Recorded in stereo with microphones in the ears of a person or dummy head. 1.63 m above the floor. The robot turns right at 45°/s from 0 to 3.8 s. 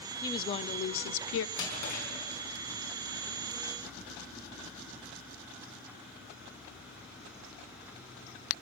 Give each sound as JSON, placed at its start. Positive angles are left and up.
{"t": 0.2, "sound": "a woman speaking", "azimuth_deg": 20, "distance_m": 0.6}
{"t": 1.6, "sound": "a drawer", "side_deg": 70, "distance_m": 6.0}